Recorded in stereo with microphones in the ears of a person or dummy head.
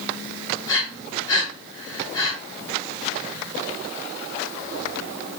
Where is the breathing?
20° left (ahead or behind), 1.4 m.